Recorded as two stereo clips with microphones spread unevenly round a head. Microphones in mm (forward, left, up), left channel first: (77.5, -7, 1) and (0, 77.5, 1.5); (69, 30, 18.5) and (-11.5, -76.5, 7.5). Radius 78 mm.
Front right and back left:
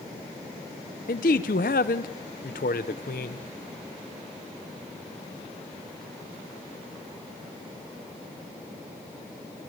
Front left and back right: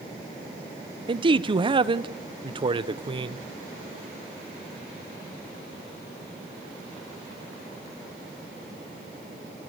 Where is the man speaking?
75° right, 1.3 m.